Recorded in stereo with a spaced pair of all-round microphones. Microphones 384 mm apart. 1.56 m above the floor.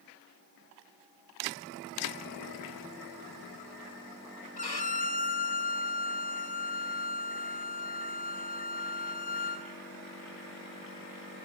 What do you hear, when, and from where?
4.6 s a violin: 85° left, 1.3 m